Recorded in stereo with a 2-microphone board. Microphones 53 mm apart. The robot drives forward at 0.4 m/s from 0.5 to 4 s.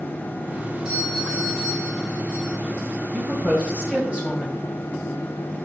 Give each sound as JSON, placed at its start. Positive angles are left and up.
{"t": 0.8, "sound": "a doorbell", "side_deg": -20, "distance_m": 6.5}
{"t": 3.1, "sound": "a woman speaking", "side_deg": -20, "distance_m": 3.5}